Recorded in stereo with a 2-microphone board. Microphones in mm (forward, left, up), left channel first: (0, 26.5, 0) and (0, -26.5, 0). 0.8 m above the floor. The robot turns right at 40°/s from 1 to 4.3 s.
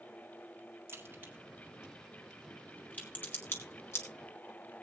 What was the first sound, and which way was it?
A crack, 45° right (ahead or behind).